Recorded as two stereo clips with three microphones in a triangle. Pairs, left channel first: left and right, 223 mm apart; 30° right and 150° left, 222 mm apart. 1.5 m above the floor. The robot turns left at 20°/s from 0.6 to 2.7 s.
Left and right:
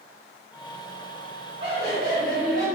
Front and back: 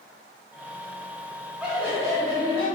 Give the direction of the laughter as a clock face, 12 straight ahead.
4 o'clock.